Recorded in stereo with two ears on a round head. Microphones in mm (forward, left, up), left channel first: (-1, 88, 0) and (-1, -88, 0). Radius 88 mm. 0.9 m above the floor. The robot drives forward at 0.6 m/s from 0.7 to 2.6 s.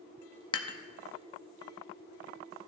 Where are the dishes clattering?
25° left (ahead or behind), 0.7 m.